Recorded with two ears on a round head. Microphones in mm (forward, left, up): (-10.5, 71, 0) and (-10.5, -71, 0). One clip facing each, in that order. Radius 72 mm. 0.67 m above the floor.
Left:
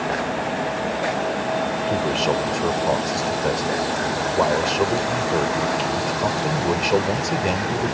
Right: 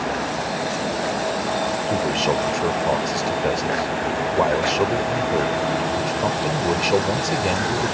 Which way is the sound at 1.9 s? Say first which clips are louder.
Even; centre (ahead or behind).